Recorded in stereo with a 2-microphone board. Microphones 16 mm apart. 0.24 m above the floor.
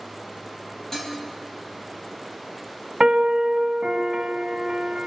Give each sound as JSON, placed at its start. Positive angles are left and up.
{"t": 0.9, "sound": "dishes clattering", "side_deg": 30, "distance_m": 4.0}
{"t": 3.0, "sound": "a piano", "side_deg": -55, "distance_m": 0.9}